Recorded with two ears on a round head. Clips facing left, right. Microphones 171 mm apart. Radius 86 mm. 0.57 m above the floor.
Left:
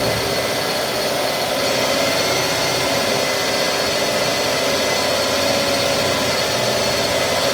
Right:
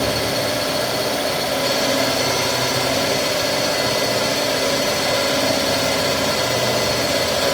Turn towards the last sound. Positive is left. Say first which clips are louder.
# left 1 dB
turn(degrees=-70)  # may be behind; listen again after turning